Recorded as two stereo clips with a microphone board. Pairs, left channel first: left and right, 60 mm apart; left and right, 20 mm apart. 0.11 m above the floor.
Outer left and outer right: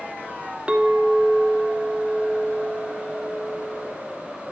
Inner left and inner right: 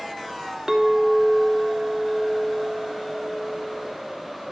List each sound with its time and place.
0.7 s a clink: 20° right (ahead or behind), 0.8 m